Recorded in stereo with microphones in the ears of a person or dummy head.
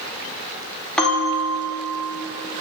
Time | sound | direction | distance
1.0 | a bell | 5° left (ahead or behind) | 1.4 m